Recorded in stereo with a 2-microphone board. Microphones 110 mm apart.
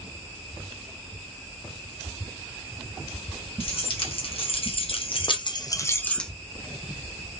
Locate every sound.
3.6 s keys jangling: 55° left (ahead or behind), 1.3 m; by 6.3 s 5° left (ahead or behind), 0.6 m